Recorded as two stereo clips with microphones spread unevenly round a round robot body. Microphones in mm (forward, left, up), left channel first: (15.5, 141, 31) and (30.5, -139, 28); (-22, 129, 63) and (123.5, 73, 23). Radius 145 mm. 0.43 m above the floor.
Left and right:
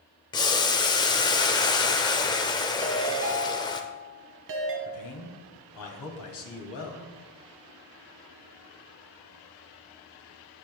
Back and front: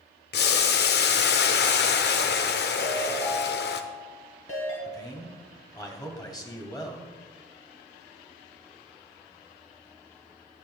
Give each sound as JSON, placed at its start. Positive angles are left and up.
{"t": 0.3, "sound": "boiling", "azimuth_deg": 170, "distance_m": 0.8}
{"t": 2.8, "sound": "a ringtone", "azimuth_deg": -135, "distance_m": 1.7}
{"t": 4.8, "sound": "a man speaking", "azimuth_deg": 90, "distance_m": 2.5}